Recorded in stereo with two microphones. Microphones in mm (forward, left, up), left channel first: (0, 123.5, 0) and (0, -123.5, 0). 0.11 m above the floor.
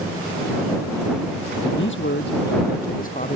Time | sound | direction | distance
1.6 | a man speaking | 60° left (ahead or behind) | ?